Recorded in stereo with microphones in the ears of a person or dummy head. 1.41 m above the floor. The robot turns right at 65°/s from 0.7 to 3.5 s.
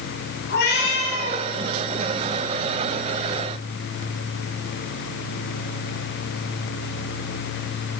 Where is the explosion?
No explosion in this recording.